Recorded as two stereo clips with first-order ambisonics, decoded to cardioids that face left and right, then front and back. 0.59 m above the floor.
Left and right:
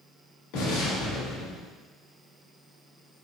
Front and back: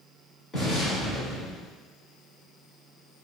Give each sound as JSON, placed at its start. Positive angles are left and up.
{"t": 0.5, "sound": "an explosion", "azimuth_deg": 70, "distance_m": 1.8}